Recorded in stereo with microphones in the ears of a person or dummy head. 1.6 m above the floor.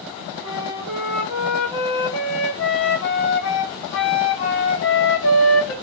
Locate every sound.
0.4 s a flute: 80° left, 1.8 m